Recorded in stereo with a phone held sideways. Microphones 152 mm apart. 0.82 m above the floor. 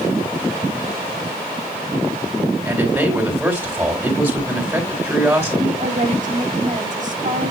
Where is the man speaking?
15° right (ahead or behind), 3.5 m.